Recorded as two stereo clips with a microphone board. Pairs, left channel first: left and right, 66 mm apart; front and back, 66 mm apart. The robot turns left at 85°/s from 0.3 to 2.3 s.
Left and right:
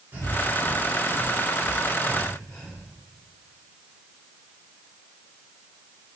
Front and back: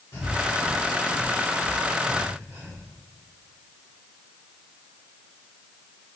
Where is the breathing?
40° right, 3 m; by 2.8 s 150° left, 3 m.